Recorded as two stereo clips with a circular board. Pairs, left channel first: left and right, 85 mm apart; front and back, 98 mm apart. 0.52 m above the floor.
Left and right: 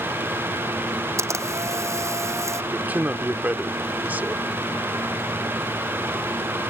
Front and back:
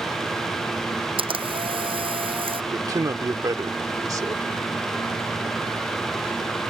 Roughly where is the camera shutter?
Behind right.